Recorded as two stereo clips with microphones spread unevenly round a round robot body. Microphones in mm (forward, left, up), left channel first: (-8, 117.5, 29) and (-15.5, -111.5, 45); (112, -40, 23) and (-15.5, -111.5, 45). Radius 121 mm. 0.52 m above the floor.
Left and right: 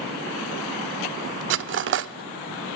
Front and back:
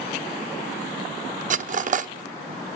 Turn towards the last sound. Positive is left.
turn(degrees=-120)